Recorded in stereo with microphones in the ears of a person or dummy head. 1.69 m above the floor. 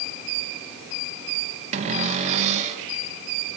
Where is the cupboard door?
35° right (ahead or behind), 2 m.